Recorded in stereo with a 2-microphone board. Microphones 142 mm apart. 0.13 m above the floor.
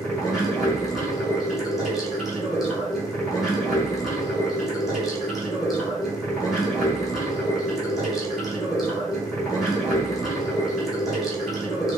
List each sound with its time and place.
0.0 s running water: centre (ahead or behind), 1.3 m